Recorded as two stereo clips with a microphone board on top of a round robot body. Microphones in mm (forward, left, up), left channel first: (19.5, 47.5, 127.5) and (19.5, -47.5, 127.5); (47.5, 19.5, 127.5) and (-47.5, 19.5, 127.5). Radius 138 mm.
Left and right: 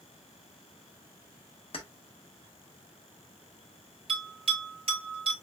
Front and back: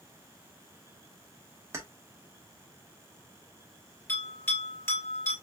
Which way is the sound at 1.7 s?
120° left.